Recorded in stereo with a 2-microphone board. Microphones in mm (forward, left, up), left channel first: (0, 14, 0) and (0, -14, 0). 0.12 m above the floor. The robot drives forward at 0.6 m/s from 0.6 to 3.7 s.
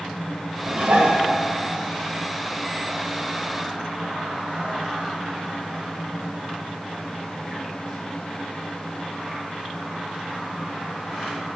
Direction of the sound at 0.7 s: 75° right (ahead or behind).